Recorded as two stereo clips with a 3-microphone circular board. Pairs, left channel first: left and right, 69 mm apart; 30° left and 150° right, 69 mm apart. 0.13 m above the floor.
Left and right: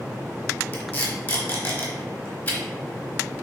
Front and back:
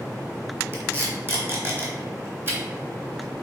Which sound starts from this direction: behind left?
Tape being pulled, at 0.7 s.